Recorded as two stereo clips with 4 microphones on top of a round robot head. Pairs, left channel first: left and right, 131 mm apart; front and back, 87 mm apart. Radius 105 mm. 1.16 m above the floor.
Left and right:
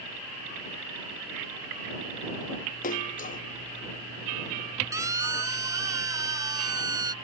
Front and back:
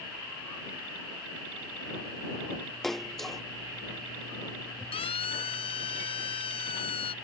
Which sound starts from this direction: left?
A splash, at 2.8 s.